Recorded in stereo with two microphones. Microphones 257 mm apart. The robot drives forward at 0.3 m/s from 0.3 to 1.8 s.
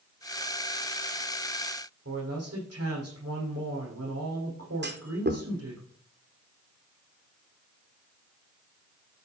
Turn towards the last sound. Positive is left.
turn(degrees=-40)  # may be behind; listen again after turning